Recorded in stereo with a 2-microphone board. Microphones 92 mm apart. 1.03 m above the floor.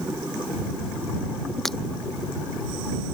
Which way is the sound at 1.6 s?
5° left (ahead or behind).